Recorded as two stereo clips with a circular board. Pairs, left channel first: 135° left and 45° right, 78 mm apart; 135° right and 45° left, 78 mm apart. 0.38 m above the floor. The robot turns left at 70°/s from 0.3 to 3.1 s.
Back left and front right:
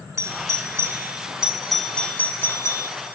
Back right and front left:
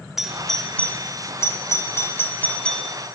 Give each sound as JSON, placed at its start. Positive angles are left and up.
{"t": 0.2, "sound": "a doorbell", "azimuth_deg": -40, "distance_m": 1.7}